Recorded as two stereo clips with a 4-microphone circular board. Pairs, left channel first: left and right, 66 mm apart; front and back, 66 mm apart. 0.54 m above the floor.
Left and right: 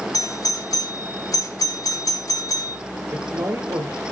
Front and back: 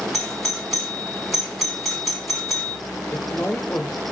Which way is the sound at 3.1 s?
60° right.